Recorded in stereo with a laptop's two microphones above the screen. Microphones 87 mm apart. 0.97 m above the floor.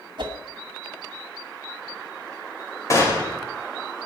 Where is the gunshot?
35° left (ahead or behind), 2.5 m.